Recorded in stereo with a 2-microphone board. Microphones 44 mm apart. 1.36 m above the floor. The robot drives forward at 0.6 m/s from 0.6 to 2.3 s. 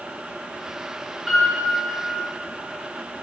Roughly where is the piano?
Centre.